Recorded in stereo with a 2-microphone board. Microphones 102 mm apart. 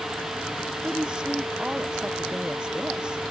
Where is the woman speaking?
10° right (ahead or behind).